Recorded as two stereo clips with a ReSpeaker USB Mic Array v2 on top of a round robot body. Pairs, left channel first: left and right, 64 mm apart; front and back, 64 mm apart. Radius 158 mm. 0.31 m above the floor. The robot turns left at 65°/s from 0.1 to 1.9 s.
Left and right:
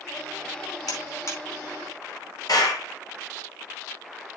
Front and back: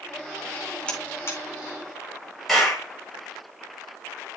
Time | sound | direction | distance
0.9 | a buzzer | 75° left | 4.5 m
2.5 | a clap | 90° left | 7.5 m